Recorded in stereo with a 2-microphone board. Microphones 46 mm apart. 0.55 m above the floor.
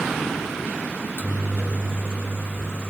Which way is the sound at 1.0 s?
50° left (ahead or behind).